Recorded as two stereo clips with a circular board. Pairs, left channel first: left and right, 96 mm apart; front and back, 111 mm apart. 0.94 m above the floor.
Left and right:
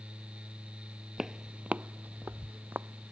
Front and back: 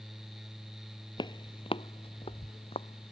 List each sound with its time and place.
1.2 s footsteps: 5° right; by 3.1 s 25° right